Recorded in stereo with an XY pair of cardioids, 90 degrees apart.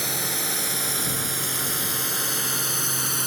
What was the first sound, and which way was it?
A drone, 10° right.